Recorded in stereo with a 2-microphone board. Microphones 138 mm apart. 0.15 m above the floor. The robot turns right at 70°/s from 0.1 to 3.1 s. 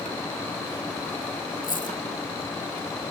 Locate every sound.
1.6 s a dropped coin: 80° left, 2 m; by 2.0 s 60° left (ahead or behind), 2 m